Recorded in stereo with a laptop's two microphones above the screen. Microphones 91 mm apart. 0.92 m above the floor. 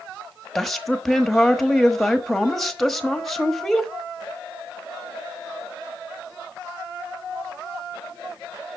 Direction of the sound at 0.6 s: 5° left (ahead or behind).